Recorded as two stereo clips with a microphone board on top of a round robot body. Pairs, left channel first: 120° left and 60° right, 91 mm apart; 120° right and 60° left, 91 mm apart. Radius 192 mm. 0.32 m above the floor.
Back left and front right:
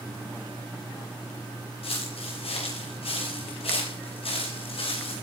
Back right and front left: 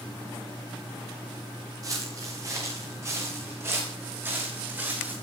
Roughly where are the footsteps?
Behind left.